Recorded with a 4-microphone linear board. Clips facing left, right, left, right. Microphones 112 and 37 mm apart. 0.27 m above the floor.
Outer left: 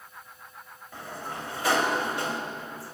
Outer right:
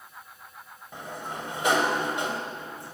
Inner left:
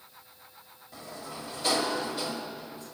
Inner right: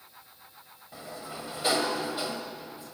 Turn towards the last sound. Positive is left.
turn(degrees=-20)  # may be behind; listen again after turning